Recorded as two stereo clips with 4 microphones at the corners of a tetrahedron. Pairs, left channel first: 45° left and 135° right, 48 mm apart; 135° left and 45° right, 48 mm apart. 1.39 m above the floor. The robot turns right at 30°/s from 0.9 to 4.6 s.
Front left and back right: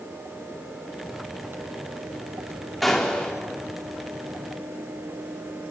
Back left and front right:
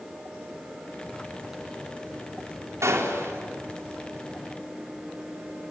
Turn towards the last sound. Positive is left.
turn(degrees=10)